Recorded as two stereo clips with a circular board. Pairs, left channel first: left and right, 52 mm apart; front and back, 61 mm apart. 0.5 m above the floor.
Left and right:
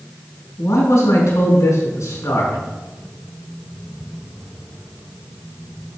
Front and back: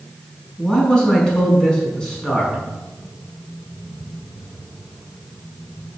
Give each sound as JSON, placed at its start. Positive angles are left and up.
{"t": 0.6, "sound": "a man speaking", "azimuth_deg": 80, "distance_m": 5.0}